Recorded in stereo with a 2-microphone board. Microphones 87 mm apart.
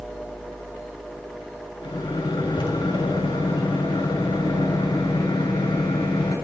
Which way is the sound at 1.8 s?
80° left.